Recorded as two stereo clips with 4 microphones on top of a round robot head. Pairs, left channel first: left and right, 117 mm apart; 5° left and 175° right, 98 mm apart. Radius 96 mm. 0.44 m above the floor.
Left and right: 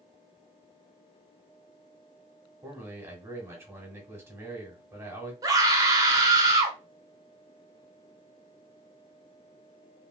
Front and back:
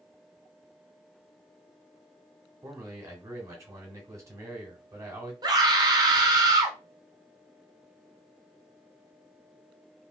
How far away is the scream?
About 1.2 m.